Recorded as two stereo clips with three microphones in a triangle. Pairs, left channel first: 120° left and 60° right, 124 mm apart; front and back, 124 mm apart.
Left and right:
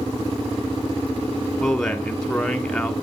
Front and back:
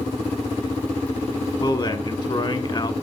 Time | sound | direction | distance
1.6 | a man speaking | 35° left | 1.4 m